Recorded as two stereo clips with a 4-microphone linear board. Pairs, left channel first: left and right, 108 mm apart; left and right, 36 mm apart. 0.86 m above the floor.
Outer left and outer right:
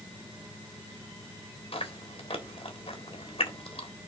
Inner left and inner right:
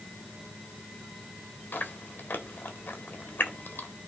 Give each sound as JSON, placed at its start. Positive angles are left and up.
{"t": 1.7, "sound": "chewing", "side_deg": 60, "distance_m": 1.7}